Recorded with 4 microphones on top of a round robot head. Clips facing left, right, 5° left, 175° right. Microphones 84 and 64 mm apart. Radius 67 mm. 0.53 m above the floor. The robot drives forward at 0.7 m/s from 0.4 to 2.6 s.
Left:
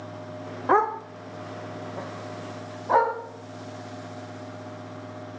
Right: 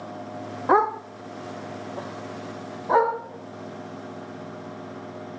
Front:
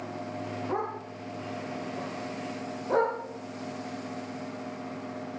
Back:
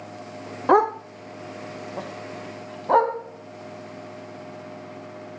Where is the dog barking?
175° right, 0.6 m; by 3.1 s straight behind, 1.9 m.